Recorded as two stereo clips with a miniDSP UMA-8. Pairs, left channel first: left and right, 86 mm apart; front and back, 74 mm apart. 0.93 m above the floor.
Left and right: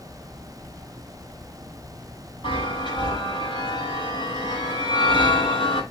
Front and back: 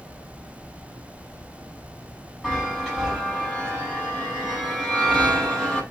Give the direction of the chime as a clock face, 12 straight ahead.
9 o'clock.